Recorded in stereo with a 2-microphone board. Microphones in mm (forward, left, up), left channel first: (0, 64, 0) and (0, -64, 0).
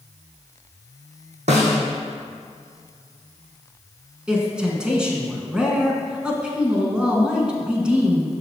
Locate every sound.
1.5 s a snare drum: 70° right (ahead or behind), 1.7 m
4.3 s a man speaking: 10° right (ahead or behind), 1.2 m